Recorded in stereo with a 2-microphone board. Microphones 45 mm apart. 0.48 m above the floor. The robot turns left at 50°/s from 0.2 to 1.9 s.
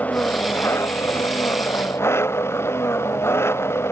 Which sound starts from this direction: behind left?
An engine running, at 0.0 s.